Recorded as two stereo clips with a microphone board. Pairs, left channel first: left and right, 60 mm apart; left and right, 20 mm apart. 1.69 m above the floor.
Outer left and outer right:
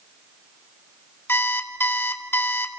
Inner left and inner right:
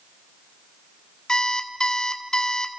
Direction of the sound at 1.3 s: 35° left (ahead or behind).